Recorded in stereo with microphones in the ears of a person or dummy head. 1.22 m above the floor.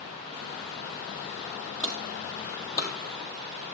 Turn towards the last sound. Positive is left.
turn(degrees=25)  # may be behind; listen again after turning